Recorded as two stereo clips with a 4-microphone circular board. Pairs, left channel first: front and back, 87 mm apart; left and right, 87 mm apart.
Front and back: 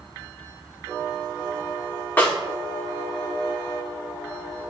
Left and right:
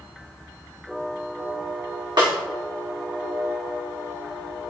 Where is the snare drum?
70° right, 2 m.